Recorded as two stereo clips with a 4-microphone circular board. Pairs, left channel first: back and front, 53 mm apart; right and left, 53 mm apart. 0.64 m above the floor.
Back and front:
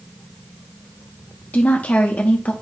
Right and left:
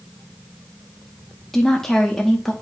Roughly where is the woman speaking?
Behind.